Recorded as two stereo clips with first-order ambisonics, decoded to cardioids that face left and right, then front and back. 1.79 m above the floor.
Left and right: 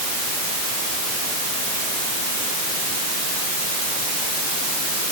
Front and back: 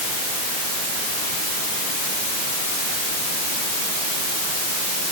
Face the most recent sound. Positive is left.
No sound to turn to.